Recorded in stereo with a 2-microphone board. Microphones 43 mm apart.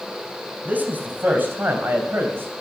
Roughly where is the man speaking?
Right.